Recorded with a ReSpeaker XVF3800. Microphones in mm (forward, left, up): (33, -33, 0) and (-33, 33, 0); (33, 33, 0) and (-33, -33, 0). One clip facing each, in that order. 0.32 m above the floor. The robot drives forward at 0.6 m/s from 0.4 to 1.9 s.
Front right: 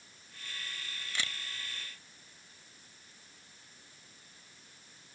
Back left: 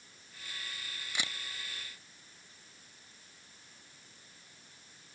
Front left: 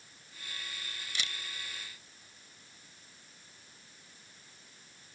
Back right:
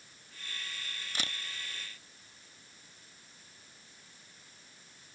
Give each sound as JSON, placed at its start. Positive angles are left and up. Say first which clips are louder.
{"t": 1.1, "sound": "a camera shutter", "louder": "even, back right 1 dB", "azimuth_deg": -155}